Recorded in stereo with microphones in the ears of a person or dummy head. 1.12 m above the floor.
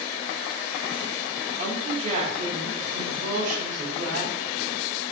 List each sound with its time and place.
1.6 s a woman speaking: 40° right (ahead or behind), 3.5 m